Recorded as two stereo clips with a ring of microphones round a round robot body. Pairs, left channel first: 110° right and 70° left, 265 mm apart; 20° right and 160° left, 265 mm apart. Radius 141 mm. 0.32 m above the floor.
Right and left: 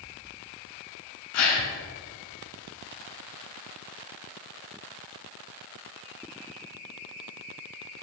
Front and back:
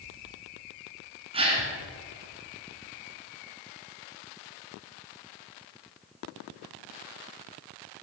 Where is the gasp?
130° right, 3 m.